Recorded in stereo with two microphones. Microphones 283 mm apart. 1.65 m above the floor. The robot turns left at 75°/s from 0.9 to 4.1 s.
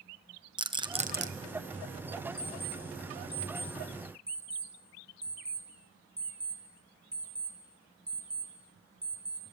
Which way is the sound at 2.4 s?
30° right (ahead or behind).